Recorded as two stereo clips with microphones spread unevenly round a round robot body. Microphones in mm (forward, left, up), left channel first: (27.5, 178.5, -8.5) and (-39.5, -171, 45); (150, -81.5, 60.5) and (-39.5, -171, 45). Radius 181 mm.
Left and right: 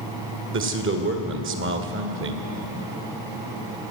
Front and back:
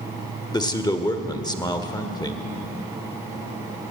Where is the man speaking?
45° right, 1.9 m.